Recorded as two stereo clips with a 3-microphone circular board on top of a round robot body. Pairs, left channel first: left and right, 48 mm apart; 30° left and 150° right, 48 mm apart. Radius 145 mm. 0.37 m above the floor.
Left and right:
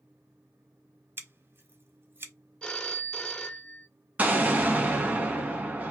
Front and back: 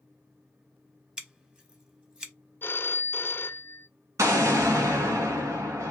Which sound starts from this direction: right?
Scissors, at 1.2 s.